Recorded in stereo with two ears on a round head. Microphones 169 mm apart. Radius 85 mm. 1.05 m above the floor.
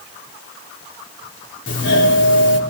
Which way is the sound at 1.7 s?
75° left (ahead or behind).